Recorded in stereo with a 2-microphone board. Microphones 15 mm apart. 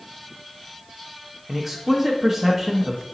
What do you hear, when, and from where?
1.5 s a man speaking: 10° right (ahead or behind), 0.6 m